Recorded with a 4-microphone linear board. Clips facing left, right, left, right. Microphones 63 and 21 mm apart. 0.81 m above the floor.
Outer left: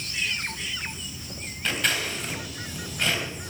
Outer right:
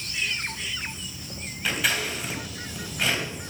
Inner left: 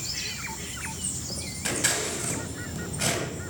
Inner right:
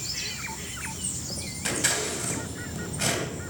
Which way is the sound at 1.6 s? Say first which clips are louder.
Outer right 1 dB, even; 5° right (ahead or behind).